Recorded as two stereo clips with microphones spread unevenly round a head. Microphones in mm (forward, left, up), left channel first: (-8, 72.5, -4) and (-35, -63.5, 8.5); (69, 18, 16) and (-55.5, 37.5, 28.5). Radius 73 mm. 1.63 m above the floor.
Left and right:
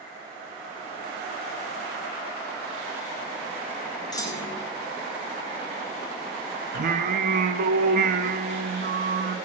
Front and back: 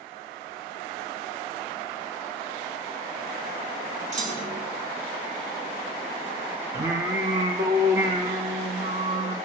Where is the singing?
120° right, 0.9 m.